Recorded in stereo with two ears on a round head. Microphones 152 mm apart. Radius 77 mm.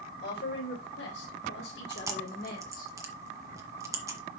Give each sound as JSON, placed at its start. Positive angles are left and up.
{"t": 0.2, "sound": "a woman speaking", "side_deg": 65, "distance_m": 3.5}
{"t": 1.9, "sound": "chewing", "side_deg": -20, "distance_m": 1.5}